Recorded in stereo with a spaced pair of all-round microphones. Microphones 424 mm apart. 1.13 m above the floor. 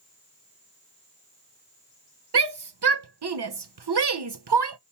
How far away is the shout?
About 0.8 m.